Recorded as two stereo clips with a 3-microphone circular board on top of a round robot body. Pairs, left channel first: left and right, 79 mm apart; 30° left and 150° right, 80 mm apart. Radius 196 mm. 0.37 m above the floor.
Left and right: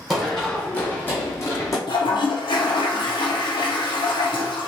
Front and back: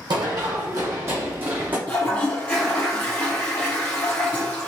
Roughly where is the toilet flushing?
Left.